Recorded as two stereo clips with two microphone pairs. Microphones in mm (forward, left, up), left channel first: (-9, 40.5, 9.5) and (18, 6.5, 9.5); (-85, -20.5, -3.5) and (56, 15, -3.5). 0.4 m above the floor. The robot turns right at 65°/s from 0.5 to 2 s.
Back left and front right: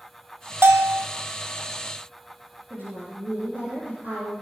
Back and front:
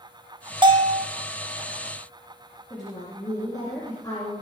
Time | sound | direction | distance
0.6 | a bell | 40° right | 1.6 m
2.7 | a woman speaking | 100° right | 7.5 m